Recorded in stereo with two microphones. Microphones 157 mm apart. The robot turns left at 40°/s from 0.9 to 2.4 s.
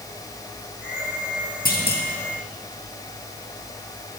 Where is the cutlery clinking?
I don't hear cutlery clinking.